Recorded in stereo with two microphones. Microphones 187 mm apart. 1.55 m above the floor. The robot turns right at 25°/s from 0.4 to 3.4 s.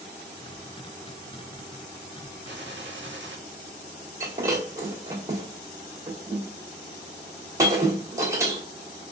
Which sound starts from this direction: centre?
Breaking glass, at 4.2 s.